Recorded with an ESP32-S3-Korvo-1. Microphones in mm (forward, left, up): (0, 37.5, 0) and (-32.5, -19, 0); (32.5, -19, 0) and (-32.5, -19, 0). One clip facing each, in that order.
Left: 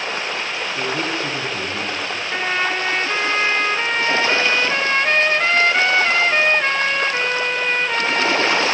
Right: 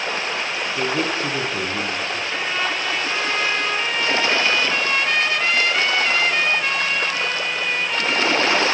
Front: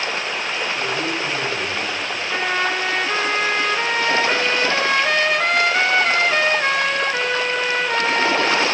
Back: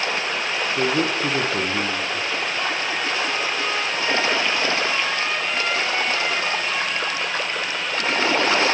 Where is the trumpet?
10° left, 3 m.